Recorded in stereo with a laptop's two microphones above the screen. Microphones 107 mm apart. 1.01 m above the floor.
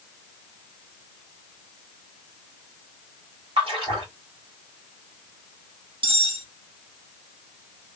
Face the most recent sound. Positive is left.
turn(degrees=-60)  # may be behind; listen again after turning